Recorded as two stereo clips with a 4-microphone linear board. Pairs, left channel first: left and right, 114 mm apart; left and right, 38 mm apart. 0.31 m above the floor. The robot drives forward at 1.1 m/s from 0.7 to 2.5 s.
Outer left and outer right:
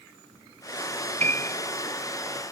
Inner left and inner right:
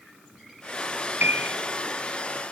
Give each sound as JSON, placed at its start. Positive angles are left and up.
{"t": 1.2, "sound": "a piano", "side_deg": -85}